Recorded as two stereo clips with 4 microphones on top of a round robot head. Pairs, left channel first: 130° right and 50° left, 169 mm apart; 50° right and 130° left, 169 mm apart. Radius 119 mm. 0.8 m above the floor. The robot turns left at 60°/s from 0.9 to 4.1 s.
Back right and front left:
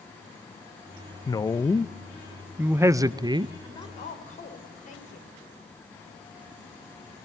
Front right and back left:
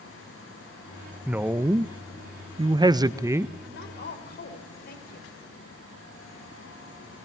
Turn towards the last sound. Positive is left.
turn(degrees=-80)